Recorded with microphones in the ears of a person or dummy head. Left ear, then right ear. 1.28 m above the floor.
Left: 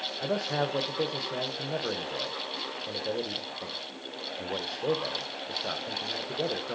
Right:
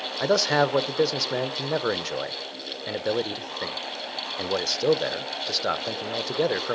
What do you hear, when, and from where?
0.2 s a man speaking: 80° right, 0.6 m